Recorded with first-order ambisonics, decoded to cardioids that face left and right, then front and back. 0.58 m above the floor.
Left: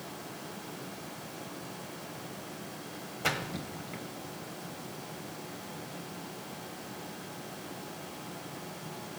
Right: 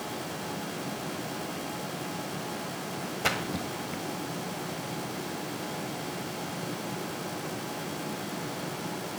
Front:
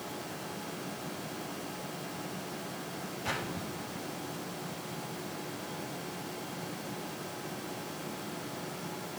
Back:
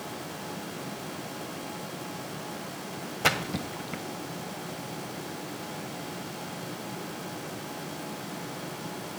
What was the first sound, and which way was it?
A splash, 165° right.